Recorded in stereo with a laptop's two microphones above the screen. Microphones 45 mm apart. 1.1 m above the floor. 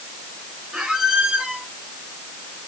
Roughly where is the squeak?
Right.